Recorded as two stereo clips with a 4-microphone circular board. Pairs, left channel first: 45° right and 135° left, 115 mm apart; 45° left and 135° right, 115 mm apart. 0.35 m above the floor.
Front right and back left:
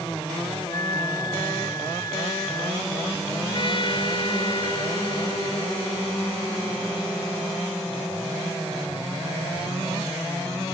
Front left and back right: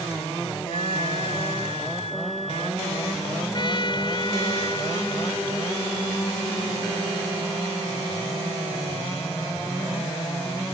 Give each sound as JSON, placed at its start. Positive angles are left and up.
{"t": 0.7, "sound": "a flute", "azimuth_deg": 15}
{"t": 3.5, "sound": "a trumpet", "azimuth_deg": 0}